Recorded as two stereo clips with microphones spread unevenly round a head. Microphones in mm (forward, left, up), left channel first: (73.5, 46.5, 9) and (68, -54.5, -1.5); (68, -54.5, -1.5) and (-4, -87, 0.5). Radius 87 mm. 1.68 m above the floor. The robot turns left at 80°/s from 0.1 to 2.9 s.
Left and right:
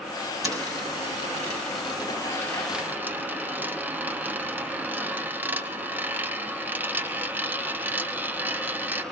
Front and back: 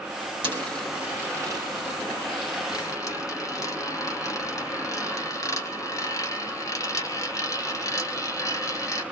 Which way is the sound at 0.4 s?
175° left.